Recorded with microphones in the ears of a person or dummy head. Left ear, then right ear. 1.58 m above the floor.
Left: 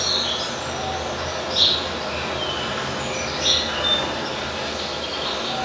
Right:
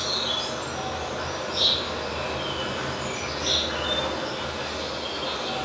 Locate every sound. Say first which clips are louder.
0.0 s an insect: left 4 dB; 45° left (ahead or behind), 0.9 m